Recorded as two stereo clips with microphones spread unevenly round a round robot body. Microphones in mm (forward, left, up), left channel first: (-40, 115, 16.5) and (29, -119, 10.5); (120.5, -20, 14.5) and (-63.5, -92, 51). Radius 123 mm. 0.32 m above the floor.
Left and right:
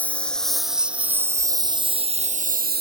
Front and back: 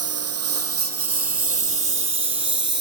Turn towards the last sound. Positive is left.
turn(degrees=-125)